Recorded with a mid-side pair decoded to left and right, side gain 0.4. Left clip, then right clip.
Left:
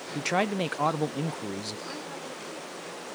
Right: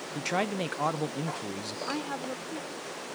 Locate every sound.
0.1 s a man speaking: 30° left
1.9 s a woman speaking: 60° right